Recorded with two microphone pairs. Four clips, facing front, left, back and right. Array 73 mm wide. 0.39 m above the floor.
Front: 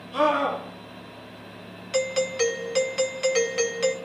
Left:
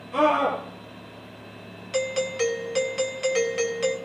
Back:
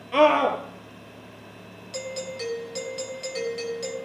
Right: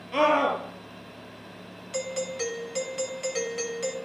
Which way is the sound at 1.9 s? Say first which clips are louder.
Left 6 dB, front 9 dB; 25° left.